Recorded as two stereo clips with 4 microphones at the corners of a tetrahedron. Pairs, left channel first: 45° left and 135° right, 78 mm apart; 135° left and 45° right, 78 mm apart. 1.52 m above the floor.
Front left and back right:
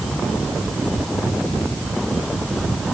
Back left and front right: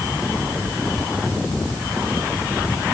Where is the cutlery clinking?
No cutlery clinking in this recording.